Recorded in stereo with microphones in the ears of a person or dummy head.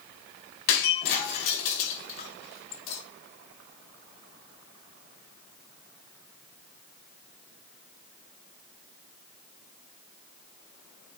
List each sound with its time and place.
0.7 s breaking glass: 50° left (ahead or behind), 3 m